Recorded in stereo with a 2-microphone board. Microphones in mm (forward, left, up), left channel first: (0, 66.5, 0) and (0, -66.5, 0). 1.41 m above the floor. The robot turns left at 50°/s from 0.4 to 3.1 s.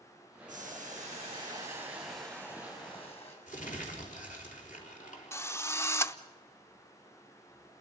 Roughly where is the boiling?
Right.